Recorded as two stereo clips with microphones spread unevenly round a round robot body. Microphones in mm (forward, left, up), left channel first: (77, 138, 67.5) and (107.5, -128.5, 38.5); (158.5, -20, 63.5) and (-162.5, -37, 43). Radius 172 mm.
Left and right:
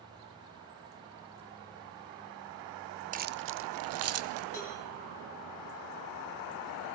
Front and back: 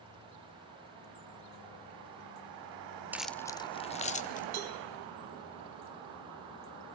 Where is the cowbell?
165° left, 2.5 m.